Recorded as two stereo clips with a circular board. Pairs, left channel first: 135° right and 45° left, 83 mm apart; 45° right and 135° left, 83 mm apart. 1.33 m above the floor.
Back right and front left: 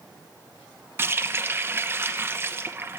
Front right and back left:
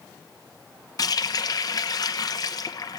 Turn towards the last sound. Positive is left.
turn(degrees=-15)